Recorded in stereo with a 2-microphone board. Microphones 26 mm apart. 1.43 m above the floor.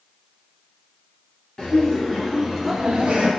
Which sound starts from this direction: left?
Laughter, at 1.6 s.